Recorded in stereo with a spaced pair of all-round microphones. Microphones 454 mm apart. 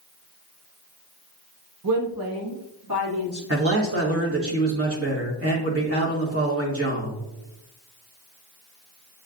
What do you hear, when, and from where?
1.8 s a woman speaking: 45° right (ahead or behind), 1.0 m; by 3.4 s 55° right (ahead or behind), 2.5 m
3.5 s a man speaking: 30° right (ahead or behind), 1.3 m